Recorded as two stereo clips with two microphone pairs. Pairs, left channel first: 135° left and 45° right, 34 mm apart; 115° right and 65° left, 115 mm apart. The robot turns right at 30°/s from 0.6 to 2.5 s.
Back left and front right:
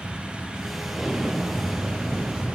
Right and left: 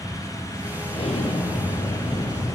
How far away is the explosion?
About 1.2 m.